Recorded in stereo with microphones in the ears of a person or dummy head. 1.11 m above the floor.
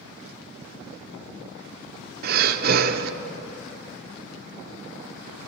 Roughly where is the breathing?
Right.